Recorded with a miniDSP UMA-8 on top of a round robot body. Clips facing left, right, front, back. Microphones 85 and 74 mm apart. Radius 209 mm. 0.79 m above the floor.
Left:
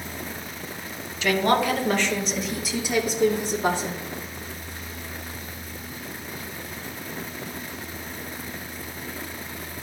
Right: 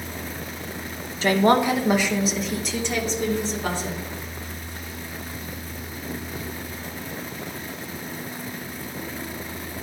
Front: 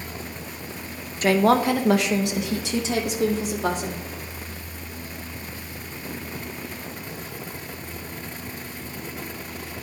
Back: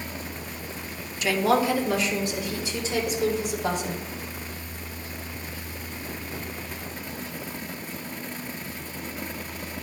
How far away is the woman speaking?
About 1.2 m.